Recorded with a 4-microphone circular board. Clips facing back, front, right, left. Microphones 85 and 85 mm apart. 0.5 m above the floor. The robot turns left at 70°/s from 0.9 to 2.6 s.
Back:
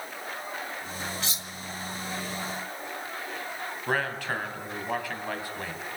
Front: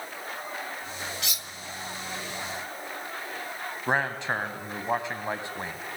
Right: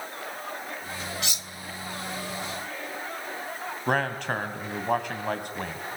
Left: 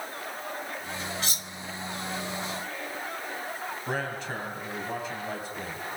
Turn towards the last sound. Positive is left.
turn(degrees=-65)